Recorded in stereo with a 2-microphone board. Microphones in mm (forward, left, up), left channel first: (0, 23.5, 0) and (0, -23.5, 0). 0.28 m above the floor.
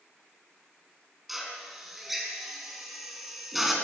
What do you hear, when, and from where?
1.3 s a drill: 5° right (ahead or behind), 3.5 m